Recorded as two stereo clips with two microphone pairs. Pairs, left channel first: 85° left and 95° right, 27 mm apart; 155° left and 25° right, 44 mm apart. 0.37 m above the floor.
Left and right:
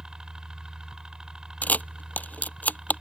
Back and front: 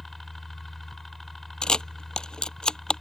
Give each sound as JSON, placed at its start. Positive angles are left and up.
{"t": 0.0, "sound": "a helicopter", "azimuth_deg": -125}
{"t": 1.6, "sound": "a camera shutter", "azimuth_deg": 85}